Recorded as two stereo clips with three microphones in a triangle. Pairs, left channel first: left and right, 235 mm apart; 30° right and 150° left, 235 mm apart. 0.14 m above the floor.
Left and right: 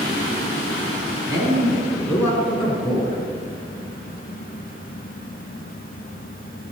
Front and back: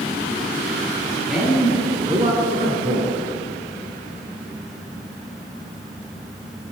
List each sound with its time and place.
1.3 s a man speaking: 130° right, 1.6 m; by 3.2 s 145° left, 2.5 m